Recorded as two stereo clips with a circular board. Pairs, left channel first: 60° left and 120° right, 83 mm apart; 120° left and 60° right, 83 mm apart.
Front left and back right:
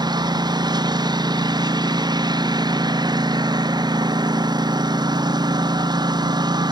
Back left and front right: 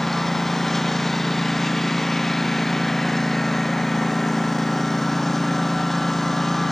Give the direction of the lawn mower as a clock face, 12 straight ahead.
5 o'clock.